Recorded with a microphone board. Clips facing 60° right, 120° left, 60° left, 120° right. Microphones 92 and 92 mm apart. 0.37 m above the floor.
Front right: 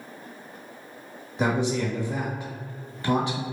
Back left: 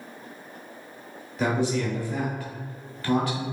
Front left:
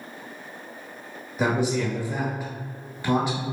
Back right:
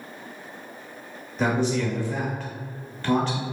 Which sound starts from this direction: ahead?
A man speaking, at 1.4 s.